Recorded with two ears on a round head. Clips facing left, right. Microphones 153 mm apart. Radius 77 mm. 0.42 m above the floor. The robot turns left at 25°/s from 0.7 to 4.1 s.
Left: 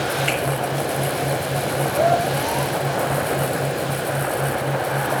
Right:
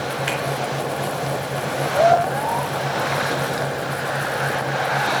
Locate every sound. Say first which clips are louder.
0.3 s a finger snap: left 2 dB; 30° right (ahead or behind), 4 m